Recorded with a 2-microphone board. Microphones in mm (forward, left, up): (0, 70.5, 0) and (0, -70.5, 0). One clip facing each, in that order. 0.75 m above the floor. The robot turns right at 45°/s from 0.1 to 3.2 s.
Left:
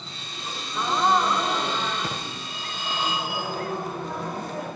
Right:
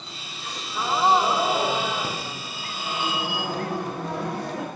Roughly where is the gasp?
Behind.